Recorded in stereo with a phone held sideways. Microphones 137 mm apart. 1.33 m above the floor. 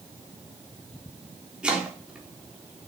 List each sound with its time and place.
1.6 s chopping: 10° right (ahead or behind), 3.5 m